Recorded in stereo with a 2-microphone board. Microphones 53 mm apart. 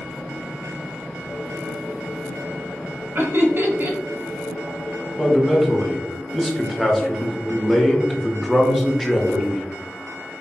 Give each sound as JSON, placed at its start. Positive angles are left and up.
{"t": 3.1, "sound": "laughter", "side_deg": -45, "distance_m": 1.0}
{"t": 5.2, "sound": "a man speaking", "side_deg": 5, "distance_m": 0.8}